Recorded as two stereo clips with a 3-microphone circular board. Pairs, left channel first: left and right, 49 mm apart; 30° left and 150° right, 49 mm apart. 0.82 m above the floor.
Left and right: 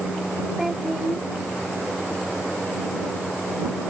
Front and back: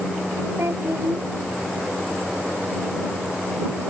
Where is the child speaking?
170° right.